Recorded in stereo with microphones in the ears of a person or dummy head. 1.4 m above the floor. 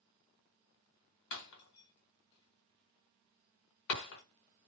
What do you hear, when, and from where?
1.3 s breaking glass: 65° left (ahead or behind), 1.4 m